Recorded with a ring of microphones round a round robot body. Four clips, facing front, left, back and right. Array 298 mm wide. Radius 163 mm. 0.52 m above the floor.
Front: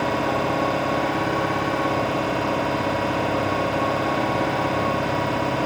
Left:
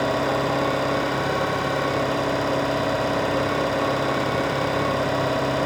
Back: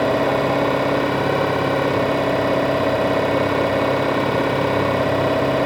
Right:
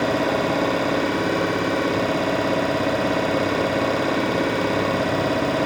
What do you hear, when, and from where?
0.0 s an engine running: 175° right, 2 m